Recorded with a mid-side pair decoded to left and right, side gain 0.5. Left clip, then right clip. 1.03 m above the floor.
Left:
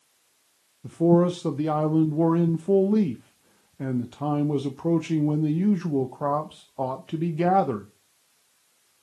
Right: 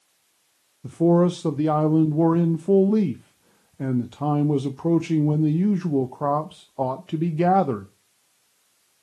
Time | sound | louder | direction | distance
0.8 | a man speaking | right 1 dB | 20° right | 0.6 m